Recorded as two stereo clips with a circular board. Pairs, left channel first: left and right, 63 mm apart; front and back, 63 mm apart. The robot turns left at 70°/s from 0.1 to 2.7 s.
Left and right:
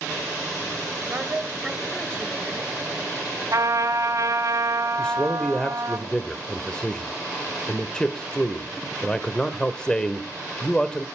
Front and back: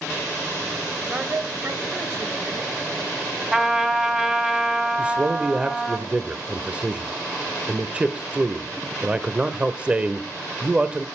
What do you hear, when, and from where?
1.1 s a woman speaking: 125° right, 1.6 m; by 2.7 s 120° left, 1.6 m
3.5 s a trumpet: 105° right, 2.5 m
5.0 s a man speaking: 145° left, 0.9 m